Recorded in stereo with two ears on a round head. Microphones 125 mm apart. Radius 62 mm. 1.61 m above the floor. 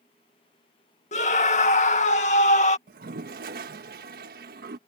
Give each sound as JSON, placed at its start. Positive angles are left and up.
{"t": 1.1, "sound": "a scream", "side_deg": 55}
{"t": 2.9, "sound": "a toilet flushing", "side_deg": -70}